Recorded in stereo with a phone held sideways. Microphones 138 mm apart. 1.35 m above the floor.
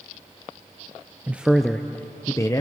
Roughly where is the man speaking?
Centre.